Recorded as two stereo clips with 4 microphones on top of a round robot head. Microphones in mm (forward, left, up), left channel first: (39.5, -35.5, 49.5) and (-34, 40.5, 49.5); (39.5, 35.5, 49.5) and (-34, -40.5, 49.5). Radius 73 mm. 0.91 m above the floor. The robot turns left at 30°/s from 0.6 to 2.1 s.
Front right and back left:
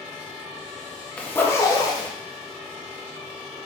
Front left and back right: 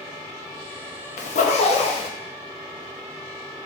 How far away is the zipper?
About 0.6 m.